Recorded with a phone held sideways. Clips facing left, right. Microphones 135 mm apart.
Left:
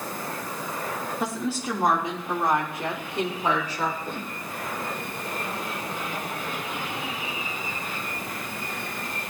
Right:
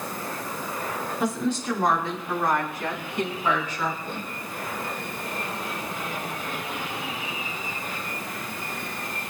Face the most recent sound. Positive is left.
turn(degrees=45)  # may be behind; listen again after turning